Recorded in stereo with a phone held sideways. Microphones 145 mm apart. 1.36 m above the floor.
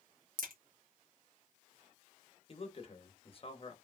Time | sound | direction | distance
0.4 | a crack | 80° right | 0.9 m
2.5 | a man speaking | 40° left (ahead or behind) | 0.7 m